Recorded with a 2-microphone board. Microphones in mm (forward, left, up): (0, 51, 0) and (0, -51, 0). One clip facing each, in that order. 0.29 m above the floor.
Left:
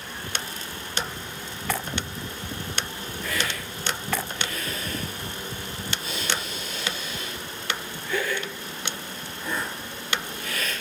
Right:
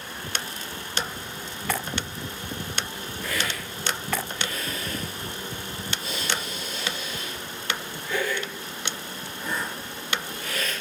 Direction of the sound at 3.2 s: 75° right (ahead or behind).